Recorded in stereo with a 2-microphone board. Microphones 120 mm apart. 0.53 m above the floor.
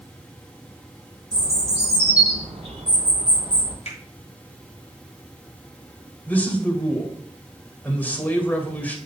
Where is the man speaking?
15° left (ahead or behind), 2.5 m.